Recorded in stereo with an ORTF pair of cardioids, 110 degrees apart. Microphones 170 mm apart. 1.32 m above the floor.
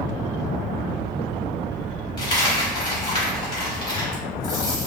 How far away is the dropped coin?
About 1.9 m.